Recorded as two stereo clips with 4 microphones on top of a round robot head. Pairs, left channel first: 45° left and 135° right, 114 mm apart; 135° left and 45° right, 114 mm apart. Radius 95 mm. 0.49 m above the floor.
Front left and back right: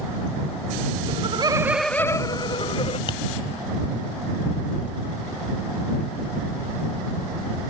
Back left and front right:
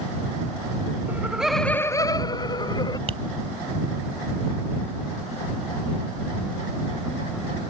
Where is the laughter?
115° right; by 3.0 s 85° left.